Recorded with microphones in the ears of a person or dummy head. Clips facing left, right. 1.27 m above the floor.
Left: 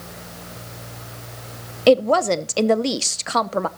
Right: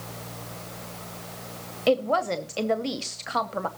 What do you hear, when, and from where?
1.9 s a woman speaking: 55° left (ahead or behind), 0.7 m